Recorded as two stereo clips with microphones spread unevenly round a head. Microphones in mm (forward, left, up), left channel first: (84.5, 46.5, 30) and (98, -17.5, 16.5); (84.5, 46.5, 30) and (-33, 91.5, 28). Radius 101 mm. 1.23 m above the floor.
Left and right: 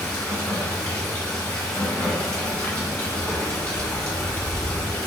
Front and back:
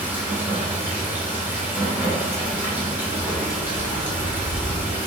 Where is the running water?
85° left, 1.2 m.